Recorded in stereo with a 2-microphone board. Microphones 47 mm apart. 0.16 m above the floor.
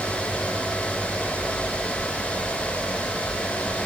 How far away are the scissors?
No scissors in this recording.